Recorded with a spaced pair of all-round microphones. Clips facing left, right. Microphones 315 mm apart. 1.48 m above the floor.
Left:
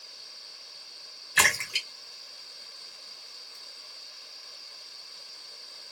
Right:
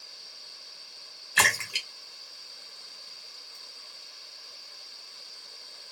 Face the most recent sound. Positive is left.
turn(degrees=25)  # may be behind; listen again after turning